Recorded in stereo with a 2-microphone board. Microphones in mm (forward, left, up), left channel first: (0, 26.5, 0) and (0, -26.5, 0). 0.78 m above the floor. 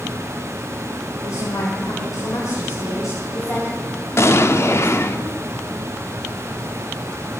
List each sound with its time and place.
1.2 s a woman speaking: 70° left (ahead or behind), 2.5 m; by 5.2 s 55° left (ahead or behind), 5 m
4.2 s an explosion: 55° left (ahead or behind), 0.6 m